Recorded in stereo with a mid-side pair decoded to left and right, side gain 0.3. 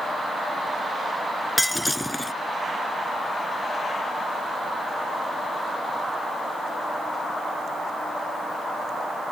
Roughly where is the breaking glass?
Ahead.